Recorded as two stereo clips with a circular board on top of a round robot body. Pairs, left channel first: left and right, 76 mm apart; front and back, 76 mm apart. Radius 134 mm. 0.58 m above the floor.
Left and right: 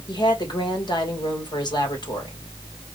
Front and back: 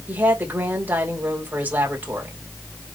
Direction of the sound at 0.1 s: 110° left.